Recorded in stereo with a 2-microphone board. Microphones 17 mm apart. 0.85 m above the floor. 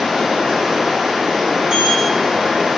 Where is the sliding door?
40° right (ahead or behind), 0.9 m.